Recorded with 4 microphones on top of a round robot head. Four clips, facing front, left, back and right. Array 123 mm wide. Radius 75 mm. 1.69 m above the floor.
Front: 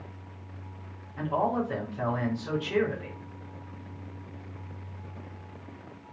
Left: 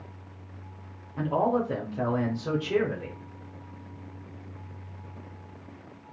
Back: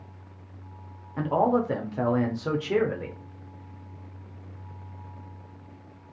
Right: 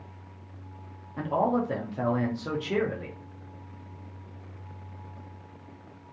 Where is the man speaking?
175° right, 0.8 m.